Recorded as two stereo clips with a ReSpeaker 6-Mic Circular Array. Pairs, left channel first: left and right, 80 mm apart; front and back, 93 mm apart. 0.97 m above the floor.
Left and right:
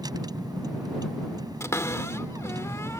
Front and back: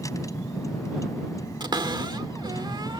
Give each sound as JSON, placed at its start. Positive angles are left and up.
{"t": 0.0, "sound": "a vehicle", "azimuth_deg": -55}
{"t": 1.6, "sound": "a cupboard door", "azimuth_deg": 140}